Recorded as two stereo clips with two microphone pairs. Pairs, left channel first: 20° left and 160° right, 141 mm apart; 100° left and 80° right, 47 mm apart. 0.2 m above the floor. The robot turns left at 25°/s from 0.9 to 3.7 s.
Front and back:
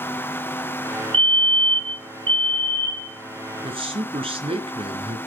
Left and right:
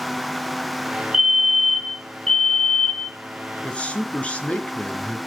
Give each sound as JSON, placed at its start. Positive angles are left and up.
{"t": 1.1, "sound": "a fire alarm", "azimuth_deg": -155, "distance_m": 2.5}
{"t": 3.6, "sound": "a man speaking", "azimuth_deg": 160, "distance_m": 3.0}